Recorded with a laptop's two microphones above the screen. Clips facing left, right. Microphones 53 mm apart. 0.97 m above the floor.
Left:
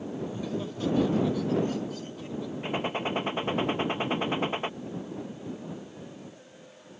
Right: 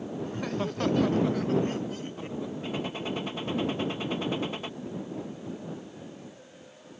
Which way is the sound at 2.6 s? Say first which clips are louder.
Left 6 dB; 35° left (ahead or behind).